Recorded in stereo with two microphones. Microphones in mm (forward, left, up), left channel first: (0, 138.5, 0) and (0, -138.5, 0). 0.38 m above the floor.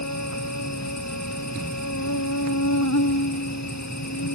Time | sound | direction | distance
0.0 | an insect | 80° left | ?